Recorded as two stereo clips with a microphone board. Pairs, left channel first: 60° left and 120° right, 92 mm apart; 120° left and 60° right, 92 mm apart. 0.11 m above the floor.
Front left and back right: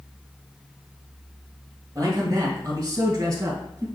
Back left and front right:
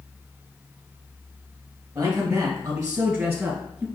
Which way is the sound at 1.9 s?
80° right.